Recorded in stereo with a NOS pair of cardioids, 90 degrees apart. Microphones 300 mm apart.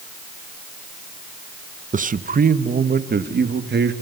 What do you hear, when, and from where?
1.9 s a man speaking: 25° right, 1.4 m; by 3.9 s 35° right, 2.5 m